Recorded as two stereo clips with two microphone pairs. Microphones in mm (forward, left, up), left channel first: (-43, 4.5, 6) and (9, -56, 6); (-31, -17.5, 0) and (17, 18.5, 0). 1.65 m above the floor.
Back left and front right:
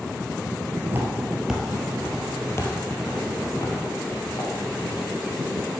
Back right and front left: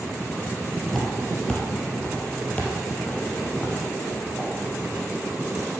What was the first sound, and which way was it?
Footsteps, 65° right.